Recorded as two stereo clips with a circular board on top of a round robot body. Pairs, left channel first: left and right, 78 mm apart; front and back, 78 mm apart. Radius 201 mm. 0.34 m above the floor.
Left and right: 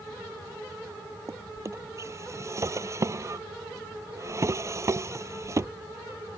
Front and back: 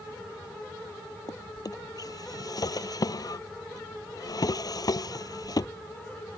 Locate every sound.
1.3 s a drawer: 40° right